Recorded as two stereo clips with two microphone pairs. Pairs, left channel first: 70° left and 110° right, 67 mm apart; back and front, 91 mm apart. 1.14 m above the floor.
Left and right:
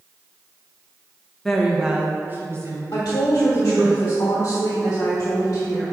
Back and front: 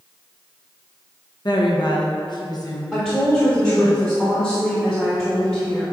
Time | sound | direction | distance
1.4 | a woman speaking | 155° left | 1.1 m
2.9 | a woman speaking | 95° left | 1.4 m